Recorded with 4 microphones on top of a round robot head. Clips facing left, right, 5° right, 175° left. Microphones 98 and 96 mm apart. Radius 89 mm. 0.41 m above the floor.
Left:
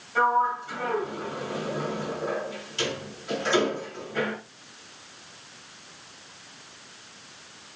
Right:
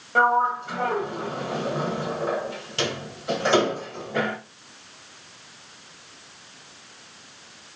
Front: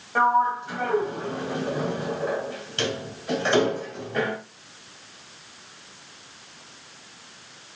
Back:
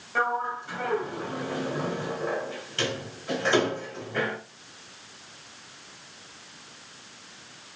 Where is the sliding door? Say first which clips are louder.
Right 3 dB, front 7 dB; 70° right, 1.6 m.